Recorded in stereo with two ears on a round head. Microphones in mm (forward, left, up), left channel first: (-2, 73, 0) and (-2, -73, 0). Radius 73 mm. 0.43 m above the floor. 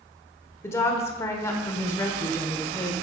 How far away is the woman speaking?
About 1.1 m.